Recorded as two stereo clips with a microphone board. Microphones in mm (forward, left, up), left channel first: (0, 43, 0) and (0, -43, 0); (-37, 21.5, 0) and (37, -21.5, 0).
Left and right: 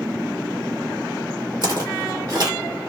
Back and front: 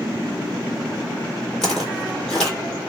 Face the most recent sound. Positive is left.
turn(degrees=-130)